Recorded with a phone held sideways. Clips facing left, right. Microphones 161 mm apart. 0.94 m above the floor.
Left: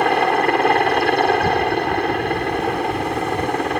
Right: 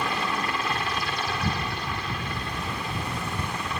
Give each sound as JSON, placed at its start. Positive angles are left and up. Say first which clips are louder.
{"t": 0.0, "sound": "a helicopter", "louder": "left 12 dB", "side_deg": 65}